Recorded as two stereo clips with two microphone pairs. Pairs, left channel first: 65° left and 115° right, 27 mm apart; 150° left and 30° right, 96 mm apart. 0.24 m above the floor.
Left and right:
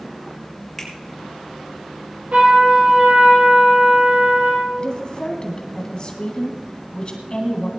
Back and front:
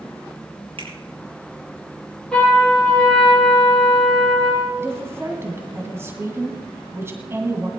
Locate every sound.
0.8 s a finger snap: 20° right, 5.5 m
2.3 s a trumpet: 130° right, 6.5 m
4.8 s a woman speaking: 25° left, 2 m